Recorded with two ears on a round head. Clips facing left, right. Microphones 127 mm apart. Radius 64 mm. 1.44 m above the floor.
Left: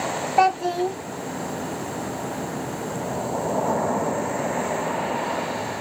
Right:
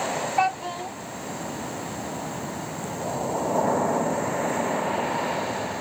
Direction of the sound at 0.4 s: 50° left (ahead or behind).